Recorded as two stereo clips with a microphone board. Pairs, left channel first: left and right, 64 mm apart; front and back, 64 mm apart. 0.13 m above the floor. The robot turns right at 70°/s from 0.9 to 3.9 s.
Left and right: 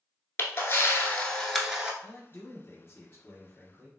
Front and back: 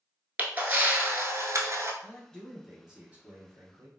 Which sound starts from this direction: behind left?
A camera shutter, at 0.4 s.